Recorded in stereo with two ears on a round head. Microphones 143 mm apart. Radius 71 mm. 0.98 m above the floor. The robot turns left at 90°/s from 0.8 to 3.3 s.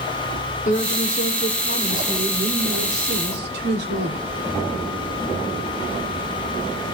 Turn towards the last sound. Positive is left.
turn(degrees=-100)